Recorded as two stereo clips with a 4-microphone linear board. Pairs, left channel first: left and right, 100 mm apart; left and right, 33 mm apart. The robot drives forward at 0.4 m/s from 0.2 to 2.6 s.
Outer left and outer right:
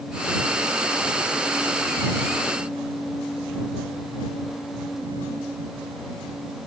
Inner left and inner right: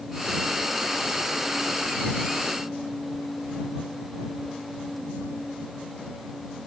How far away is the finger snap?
I don't hear a finger snap.